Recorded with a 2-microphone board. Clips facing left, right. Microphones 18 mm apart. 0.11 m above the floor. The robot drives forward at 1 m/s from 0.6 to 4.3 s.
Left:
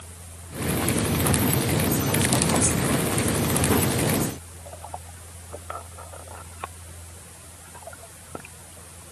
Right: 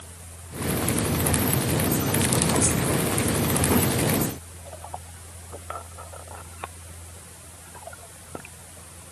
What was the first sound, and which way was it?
Only background noise.